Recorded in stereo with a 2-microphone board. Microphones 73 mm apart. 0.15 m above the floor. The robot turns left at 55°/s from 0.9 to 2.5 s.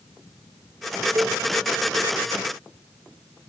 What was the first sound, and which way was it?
A cowbell, 45° right (ahead or behind).